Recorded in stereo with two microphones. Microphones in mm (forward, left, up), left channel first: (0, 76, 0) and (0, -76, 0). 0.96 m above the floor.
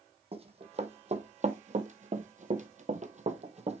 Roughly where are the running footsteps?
Right.